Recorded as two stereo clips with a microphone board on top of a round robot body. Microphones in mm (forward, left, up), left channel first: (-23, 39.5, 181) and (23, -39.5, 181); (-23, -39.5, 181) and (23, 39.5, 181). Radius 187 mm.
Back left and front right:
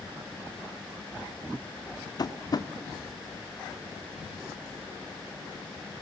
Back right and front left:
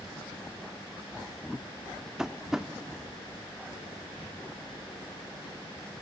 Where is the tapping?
140° left, 0.8 m.